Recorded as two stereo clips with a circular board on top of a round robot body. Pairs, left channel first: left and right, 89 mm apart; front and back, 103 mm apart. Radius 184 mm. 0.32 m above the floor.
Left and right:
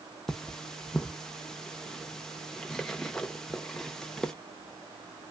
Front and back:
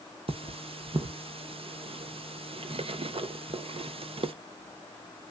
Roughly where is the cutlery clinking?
Behind.